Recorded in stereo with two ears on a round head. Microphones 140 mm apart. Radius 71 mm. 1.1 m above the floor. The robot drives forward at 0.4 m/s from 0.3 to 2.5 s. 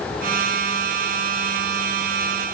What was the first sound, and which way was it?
Only background noise.